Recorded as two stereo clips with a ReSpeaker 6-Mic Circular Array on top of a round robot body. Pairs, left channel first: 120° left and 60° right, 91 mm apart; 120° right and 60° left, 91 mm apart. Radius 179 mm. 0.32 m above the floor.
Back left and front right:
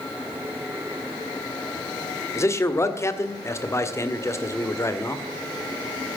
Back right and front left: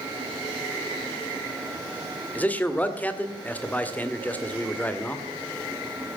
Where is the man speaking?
170° left, 2 m.